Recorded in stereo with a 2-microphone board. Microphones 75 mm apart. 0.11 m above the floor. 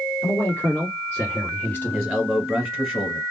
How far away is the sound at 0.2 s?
About 1.8 m.